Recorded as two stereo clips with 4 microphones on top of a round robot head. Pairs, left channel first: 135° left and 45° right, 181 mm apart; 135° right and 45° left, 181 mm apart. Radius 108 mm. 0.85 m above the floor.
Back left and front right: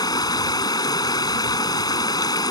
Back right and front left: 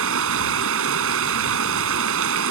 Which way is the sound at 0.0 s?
65° left.